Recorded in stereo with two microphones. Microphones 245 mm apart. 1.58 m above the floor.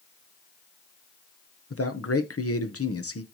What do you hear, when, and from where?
1.7 s a man speaking: 75° left (ahead or behind), 1.1 m